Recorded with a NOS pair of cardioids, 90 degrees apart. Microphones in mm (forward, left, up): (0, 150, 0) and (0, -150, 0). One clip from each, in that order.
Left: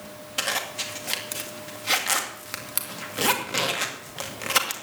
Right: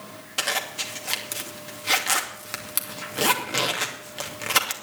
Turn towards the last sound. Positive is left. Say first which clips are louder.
# right 1 dB
turn(degrees=-5)